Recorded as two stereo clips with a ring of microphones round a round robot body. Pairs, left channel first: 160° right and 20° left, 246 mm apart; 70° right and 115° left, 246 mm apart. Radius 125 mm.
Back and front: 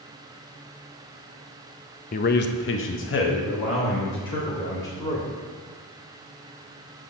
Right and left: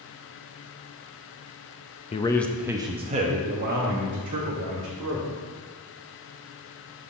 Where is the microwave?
I don't hear a microwave.